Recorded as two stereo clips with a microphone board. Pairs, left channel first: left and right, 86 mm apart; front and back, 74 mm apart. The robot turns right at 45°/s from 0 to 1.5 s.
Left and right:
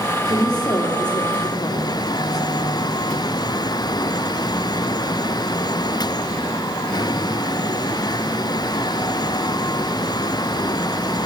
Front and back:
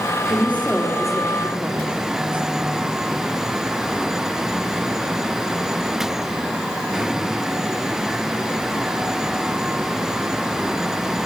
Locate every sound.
0.3 s a woman speaking: 55° left, 3.5 m; by 2.8 s 110° left, 3.5 m